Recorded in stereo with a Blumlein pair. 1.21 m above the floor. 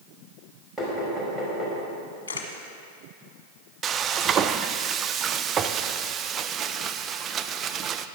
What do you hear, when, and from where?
0.8 s knocking: 5° right, 5 m
2.3 s a camera shutter: 65° left, 1.6 m
3.8 s frying: 25° right, 0.5 m